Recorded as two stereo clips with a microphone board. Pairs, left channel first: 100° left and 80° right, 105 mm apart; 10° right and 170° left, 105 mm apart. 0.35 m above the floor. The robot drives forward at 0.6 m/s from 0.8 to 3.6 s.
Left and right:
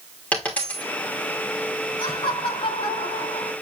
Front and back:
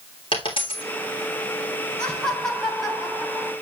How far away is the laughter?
About 3.5 m.